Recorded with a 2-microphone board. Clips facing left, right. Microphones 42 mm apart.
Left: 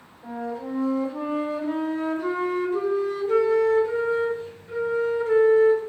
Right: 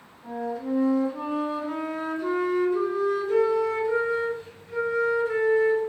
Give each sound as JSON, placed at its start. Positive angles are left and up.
{"t": 0.2, "sound": "a flute", "side_deg": 35, "distance_m": 1.4}